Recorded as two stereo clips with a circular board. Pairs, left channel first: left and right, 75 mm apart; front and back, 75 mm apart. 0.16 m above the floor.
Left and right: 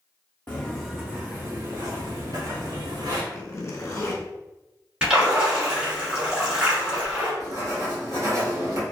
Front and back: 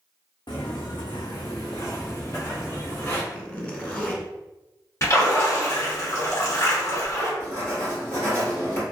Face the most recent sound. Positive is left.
turn(degrees=-50)